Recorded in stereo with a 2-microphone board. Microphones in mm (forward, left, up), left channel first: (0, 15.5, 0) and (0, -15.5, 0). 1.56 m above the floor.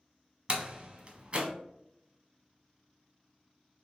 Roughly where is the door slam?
Right.